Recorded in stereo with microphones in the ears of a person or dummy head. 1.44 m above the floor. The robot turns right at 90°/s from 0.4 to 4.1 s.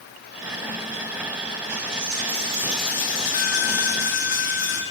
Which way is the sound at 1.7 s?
100° right.